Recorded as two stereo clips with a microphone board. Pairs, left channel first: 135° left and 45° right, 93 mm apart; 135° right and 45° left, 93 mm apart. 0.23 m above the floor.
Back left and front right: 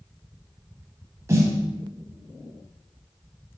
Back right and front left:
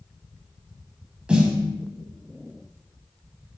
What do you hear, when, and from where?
1.3 s a snare drum: 25° right, 0.7 m